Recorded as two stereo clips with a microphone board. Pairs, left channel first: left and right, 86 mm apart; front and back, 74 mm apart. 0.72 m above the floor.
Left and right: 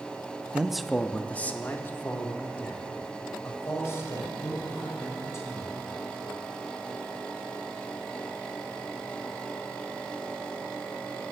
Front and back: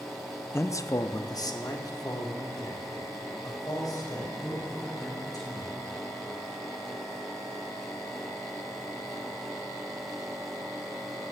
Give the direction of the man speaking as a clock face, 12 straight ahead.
1 o'clock.